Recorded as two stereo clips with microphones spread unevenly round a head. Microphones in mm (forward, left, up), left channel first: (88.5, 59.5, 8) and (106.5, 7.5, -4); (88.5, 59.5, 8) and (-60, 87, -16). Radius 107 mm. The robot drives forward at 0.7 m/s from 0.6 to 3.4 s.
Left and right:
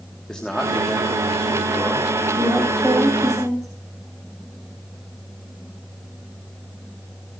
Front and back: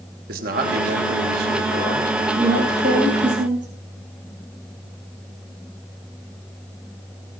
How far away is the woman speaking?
About 5.5 m.